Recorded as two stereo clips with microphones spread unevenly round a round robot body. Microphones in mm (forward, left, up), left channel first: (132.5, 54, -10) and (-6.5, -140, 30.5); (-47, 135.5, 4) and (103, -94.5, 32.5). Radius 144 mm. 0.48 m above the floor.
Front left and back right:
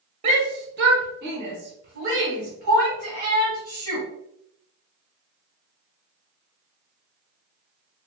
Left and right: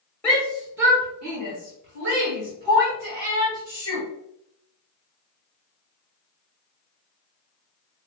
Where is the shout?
175° right, 0.9 m; by 4.0 s 70° right, 5 m.